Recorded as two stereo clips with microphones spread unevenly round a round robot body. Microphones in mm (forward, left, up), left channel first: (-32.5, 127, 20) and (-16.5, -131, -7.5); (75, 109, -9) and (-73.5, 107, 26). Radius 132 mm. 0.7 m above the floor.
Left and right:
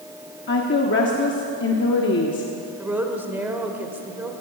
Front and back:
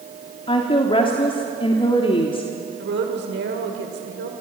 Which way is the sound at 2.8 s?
170° right.